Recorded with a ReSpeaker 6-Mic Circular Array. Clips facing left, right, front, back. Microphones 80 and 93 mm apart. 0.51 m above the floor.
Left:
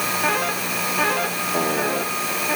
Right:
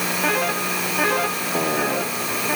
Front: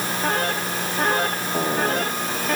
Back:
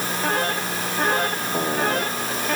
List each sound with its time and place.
Only background noise.